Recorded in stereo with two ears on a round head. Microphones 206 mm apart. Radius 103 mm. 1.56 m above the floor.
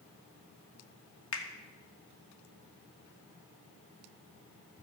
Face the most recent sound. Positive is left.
turn(degrees=65)  # may be behind; listen again after turning